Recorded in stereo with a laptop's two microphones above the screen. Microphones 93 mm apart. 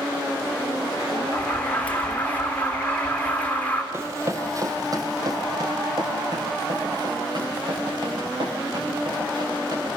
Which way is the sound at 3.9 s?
30° right (ahead or behind).